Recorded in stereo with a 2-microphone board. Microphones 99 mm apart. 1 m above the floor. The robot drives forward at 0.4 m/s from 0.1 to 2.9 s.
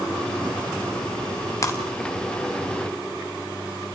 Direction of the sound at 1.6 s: 35° left (ahead or behind).